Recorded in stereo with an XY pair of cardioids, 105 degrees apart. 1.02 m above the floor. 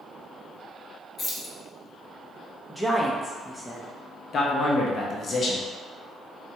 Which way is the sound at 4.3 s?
45° left.